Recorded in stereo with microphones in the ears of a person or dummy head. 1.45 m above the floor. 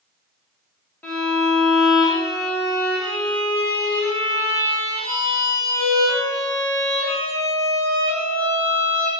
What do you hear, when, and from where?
1.0 s a violin: 10° left (ahead or behind), 1.5 m